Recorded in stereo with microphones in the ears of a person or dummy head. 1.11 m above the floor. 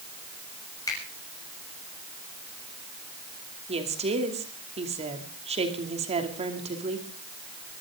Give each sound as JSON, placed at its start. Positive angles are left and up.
{"t": 0.9, "sound": "a finger snap", "side_deg": 20, "distance_m": 6.5}
{"t": 3.7, "sound": "a woman speaking", "side_deg": -35, "distance_m": 2.5}